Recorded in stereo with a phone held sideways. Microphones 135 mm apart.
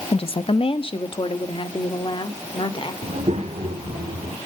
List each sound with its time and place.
0.1 s a woman speaking: 45° left (ahead or behind), 0.6 m; by 2.9 s 40° left (ahead or behind), 2.5 m
3.0 s a child speaking: 55° right (ahead or behind), 1.3 m